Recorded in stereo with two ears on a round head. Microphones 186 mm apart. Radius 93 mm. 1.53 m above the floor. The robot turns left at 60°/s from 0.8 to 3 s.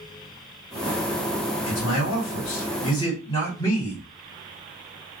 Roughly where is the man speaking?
Left.